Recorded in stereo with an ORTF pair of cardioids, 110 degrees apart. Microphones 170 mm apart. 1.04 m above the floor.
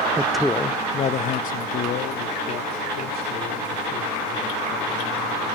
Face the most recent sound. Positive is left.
turn(degrees=75)